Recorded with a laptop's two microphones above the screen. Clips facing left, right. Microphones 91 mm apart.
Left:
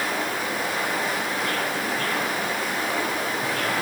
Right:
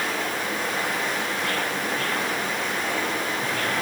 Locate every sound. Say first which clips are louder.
0.0 s running water: left 1 dB; 5° left (ahead or behind), 7 m